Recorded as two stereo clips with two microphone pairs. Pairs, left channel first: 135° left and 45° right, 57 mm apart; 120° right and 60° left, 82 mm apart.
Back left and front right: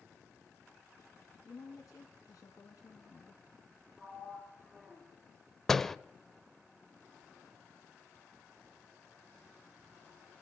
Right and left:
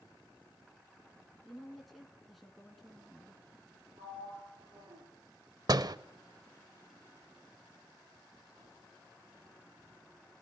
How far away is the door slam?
About 0.8 m.